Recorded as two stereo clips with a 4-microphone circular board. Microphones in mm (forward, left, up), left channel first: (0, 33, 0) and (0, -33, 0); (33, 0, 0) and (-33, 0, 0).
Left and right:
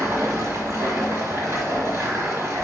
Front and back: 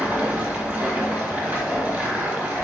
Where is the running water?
125° right, 1.4 m.